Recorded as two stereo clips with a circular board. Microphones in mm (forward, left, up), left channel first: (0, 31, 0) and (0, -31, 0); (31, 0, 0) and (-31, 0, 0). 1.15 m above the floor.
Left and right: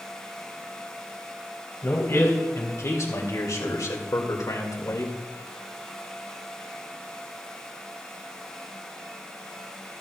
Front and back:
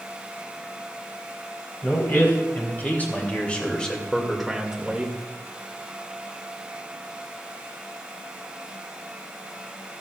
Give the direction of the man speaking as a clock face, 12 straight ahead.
10 o'clock.